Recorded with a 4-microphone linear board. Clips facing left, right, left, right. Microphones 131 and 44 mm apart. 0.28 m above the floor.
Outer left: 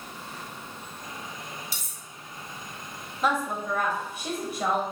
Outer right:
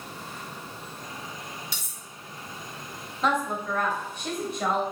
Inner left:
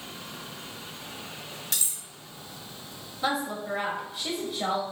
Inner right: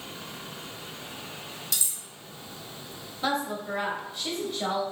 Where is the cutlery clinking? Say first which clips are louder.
Outer right 1 dB, even; 45° left (ahead or behind), 1.0 m.